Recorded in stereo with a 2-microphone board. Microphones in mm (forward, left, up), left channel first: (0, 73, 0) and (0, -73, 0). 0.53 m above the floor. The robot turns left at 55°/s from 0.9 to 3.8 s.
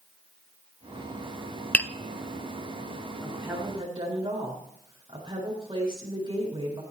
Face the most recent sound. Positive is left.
turn(degrees=-35)